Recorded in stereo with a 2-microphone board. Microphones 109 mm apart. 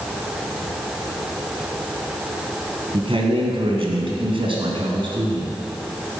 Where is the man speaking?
55° right (ahead or behind), 2.0 m; by 5.6 s 50° right (ahead or behind), 2.5 m.